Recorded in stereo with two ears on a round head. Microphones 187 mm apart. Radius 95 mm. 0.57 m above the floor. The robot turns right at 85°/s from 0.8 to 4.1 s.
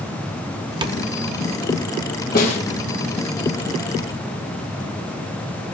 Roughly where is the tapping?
Right.